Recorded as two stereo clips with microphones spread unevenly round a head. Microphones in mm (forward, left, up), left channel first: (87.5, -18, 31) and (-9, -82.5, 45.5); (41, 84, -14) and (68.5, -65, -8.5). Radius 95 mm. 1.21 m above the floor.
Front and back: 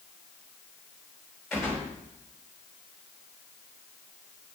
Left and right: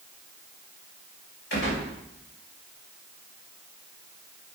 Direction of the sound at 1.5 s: 125° left.